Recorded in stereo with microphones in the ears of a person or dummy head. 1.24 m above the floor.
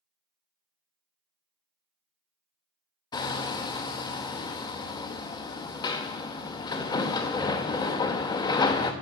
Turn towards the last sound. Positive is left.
turn(degrees=20)  # may be behind; listen again after turning